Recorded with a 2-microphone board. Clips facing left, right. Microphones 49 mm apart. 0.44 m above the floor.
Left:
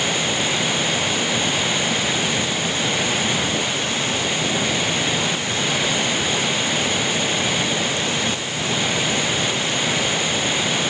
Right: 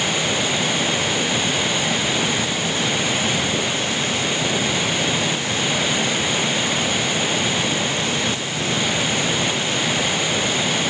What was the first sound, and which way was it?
Only background noise.